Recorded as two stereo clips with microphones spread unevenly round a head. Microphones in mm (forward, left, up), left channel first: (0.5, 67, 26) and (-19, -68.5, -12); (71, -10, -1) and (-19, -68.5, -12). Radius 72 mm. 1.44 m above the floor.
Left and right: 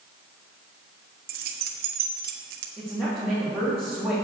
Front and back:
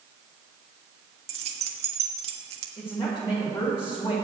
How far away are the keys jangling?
About 1.3 m.